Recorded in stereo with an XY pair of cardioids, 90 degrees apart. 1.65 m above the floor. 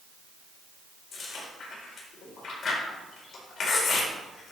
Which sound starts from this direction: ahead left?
Chewing, at 1.1 s.